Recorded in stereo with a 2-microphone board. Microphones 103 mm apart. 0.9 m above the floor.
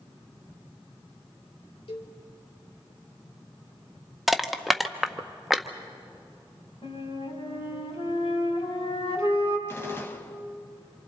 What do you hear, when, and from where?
1.9 s a cowbell: 75° left (ahead or behind), 1.9 m
4.3 s crushing: centre (ahead or behind), 0.7 m
6.8 s a flute: 75° left (ahead or behind), 4 m
9.7 s a gunshot: 25° left (ahead or behind), 1.1 m